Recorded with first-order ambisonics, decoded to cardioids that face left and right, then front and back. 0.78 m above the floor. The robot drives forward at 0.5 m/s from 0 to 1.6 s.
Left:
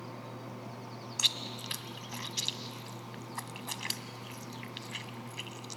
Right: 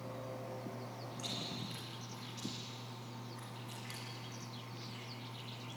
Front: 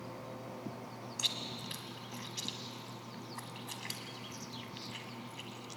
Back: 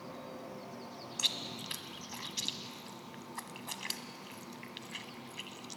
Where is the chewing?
100° left, 1.2 m; by 5.8 s 110° left, 1.3 m.